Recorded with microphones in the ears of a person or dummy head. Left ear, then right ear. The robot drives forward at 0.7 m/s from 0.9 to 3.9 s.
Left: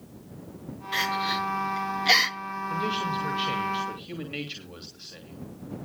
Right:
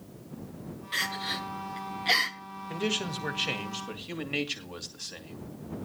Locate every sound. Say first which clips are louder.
0.9 s crying: left 5 dB; 10° left (ahead or behind), 1.8 m; by 2.4 s 25° left (ahead or behind), 0.8 m
2.7 s a man speaking: left 2 dB; 40° right (ahead or behind), 2 m; by 5.4 s 30° right (ahead or behind), 2.5 m